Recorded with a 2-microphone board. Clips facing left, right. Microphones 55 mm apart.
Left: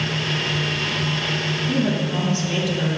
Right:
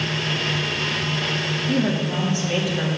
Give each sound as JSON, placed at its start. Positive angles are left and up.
{"t": 1.7, "sound": "a woman speaking", "side_deg": -10, "distance_m": 3.0}